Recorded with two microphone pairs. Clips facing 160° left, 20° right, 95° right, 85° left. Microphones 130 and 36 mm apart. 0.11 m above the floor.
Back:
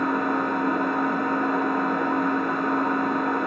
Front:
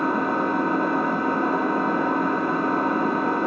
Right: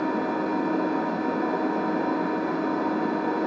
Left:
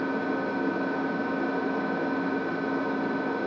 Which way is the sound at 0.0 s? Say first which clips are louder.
Front 1 dB, right 2 dB; 75° right.